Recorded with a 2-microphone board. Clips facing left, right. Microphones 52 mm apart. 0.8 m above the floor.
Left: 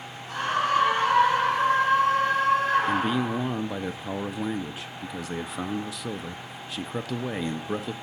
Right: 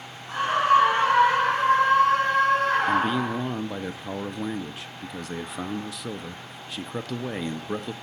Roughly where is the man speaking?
Centre.